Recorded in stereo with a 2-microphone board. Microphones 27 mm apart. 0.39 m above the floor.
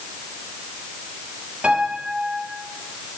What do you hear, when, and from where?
1.6 s a piano: 50° right (ahead or behind), 6.5 m